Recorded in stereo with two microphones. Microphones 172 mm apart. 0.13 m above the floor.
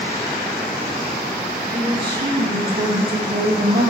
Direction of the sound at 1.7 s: 75° right (ahead or behind).